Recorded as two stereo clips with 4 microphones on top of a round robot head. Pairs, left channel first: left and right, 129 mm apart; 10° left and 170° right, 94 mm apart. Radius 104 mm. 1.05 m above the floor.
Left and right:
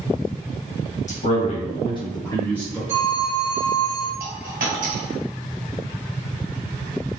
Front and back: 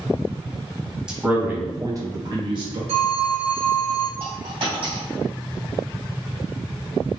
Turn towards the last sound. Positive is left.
turn(degrees=-125)